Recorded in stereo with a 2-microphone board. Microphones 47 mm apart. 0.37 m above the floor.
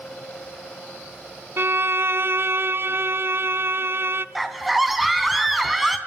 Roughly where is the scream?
Centre.